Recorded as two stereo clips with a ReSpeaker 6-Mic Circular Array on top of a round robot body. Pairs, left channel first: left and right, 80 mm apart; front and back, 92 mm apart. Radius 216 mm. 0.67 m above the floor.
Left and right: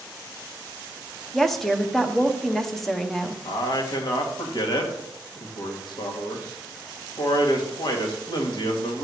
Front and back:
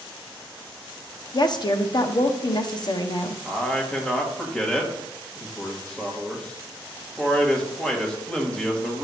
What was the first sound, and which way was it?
A woman speaking, 5° left.